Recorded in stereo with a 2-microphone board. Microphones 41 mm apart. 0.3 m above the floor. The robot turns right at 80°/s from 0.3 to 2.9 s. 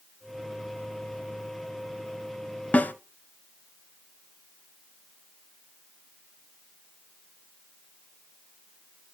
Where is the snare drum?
40° left (ahead or behind), 0.6 m; by 2.9 s 55° left (ahead or behind), 0.6 m.